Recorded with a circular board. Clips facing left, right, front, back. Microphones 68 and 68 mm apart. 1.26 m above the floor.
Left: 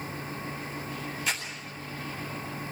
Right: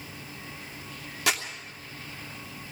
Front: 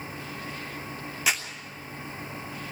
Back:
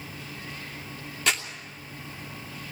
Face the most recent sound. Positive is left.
turn(degrees=-85)